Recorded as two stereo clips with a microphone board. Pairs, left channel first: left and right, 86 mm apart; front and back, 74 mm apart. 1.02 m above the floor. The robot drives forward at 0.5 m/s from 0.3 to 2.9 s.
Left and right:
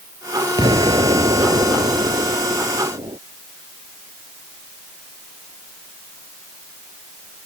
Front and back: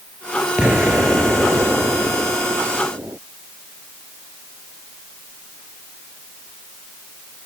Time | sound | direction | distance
0.6 | an explosion | 105° right | ?